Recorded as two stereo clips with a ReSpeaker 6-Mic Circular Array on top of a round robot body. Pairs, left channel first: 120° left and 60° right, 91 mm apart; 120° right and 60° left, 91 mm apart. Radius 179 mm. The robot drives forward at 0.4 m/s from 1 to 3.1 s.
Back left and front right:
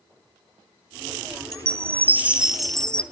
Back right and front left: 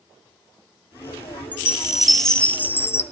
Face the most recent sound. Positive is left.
turn(degrees=-170)